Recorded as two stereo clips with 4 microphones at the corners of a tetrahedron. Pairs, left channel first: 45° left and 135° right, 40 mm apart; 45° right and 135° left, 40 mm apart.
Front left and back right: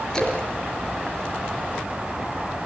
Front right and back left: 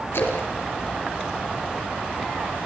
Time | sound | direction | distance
0.1 | a splash | 25° right | 5 m